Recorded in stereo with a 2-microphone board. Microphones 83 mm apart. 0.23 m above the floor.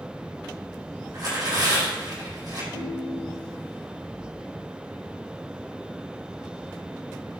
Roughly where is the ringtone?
Right.